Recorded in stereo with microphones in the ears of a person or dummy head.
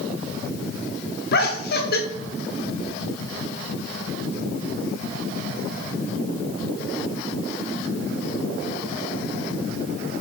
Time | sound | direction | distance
1.3 | laughter | 50° left (ahead or behind) | 0.7 m